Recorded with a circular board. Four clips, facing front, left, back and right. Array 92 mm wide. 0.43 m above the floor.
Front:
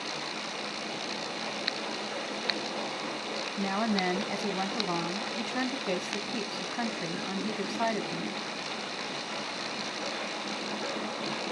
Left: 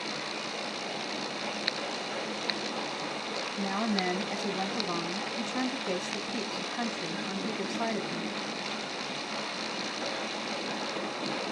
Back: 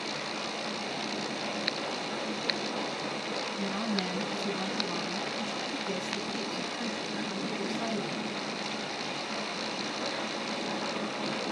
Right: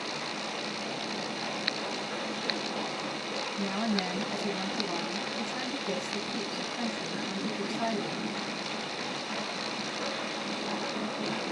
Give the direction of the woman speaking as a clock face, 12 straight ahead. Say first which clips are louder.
Left 1 dB, front 5 dB; 11 o'clock.